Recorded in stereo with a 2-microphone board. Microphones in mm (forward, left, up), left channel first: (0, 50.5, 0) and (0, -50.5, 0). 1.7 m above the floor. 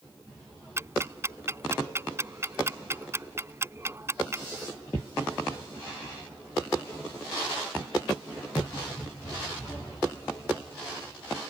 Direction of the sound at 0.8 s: 25° right (ahead or behind).